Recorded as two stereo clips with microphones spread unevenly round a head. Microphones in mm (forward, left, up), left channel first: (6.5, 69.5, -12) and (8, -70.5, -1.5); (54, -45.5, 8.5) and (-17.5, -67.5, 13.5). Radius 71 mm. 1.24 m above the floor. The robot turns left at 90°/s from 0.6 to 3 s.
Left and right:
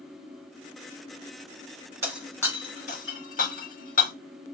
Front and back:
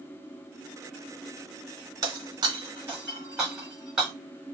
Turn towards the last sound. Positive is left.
turn(degrees=115)